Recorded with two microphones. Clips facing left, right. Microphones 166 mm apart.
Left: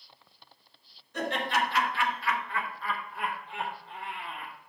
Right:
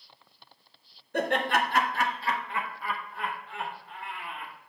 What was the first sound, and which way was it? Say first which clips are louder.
Laughter: right 3 dB; 60° right (ahead or behind).